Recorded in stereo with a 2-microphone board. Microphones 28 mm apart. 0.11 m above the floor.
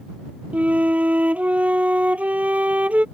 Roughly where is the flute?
Right.